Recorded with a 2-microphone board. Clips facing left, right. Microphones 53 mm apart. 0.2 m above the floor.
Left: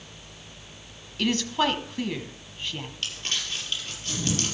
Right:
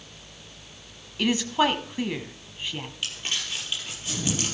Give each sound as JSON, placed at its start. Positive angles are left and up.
{"t": 1.2, "sound": "a woman speaking", "side_deg": -15, "distance_m": 1.2}
{"t": 3.0, "sound": "crumpling", "side_deg": -10, "distance_m": 5.5}